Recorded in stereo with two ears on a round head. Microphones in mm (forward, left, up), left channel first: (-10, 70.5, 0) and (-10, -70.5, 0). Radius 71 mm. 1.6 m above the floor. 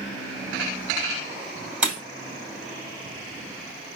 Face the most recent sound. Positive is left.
turn(degrees=-5)  # may be behind; listen again after turning